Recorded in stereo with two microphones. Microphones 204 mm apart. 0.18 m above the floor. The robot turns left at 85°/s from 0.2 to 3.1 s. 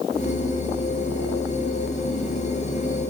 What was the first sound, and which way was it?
Only background noise.